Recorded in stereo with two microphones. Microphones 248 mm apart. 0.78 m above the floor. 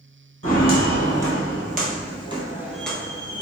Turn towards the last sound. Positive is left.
turn(degrees=25)  # may be behind; listen again after turning